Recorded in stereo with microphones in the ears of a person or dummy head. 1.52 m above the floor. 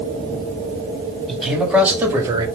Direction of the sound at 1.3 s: Centre (ahead or behind).